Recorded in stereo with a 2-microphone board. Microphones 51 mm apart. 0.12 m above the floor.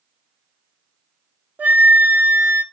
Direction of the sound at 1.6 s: 35° right (ahead or behind).